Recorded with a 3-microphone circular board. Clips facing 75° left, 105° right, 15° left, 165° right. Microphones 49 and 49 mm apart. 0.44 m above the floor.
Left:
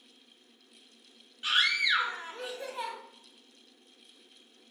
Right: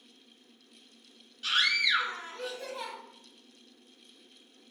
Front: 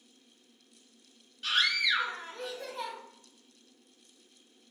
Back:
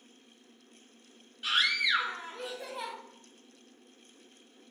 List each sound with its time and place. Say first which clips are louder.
1.4 s a scream: even, even; 125° left, 1.0 m